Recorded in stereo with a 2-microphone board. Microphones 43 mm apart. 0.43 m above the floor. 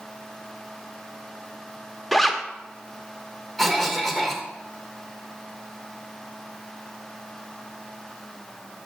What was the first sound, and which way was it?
A zipper, 5° left (ahead or behind).